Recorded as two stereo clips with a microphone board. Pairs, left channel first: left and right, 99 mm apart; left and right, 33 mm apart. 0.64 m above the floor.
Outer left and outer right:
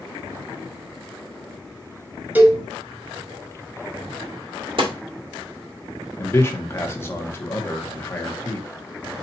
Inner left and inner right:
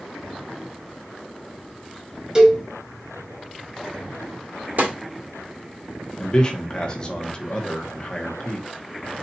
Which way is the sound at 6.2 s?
25° left (ahead or behind).